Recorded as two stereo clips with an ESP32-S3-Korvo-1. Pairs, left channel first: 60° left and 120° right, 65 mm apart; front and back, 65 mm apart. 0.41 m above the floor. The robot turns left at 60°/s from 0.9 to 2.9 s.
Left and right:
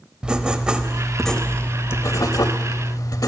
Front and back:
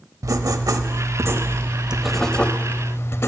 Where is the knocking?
I don't hear knocking.